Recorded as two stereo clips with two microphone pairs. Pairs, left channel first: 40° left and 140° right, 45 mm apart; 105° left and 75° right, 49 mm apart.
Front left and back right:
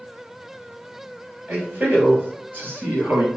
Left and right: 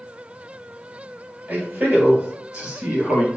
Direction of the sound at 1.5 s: 95° right.